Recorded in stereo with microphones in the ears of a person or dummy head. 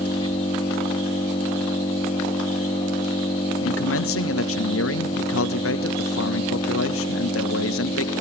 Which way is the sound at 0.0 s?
25° left (ahead or behind).